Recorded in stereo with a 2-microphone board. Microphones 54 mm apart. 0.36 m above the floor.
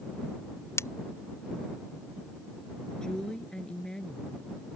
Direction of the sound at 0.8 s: 50° left (ahead or behind).